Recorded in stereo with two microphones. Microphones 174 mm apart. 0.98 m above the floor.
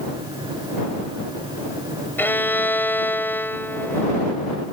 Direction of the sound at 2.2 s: 10° left (ahead or behind).